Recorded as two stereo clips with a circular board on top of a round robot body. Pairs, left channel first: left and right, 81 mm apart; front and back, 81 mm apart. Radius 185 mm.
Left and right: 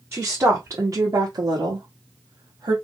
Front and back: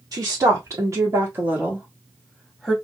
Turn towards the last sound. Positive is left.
turn(degrees=-80)